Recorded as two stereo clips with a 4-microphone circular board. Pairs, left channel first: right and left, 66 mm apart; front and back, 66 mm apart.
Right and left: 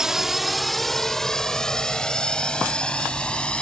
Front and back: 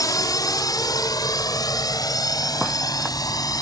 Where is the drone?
10° left; by 3.6 s 15° right.